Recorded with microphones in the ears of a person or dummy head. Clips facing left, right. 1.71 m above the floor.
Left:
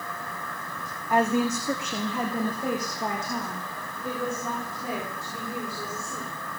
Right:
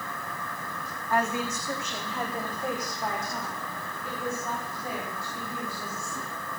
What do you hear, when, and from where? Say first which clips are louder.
1.1 s a woman speaking: left 5 dB; 10° left (ahead or behind), 0.5 m; by 6.3 s 85° left, 7 m